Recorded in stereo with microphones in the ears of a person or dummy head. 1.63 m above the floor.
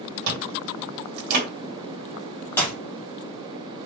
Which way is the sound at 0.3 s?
50° right (ahead or behind).